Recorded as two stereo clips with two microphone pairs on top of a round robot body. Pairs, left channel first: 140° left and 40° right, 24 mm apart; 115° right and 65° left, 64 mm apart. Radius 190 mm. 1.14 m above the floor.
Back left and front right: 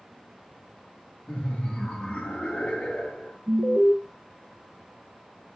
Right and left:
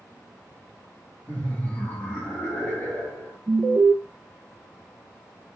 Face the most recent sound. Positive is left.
turn(degrees=10)